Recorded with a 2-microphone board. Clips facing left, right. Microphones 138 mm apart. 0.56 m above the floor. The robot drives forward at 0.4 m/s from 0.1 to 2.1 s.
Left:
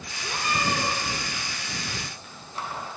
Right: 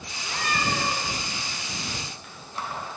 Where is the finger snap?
I don't hear a finger snap.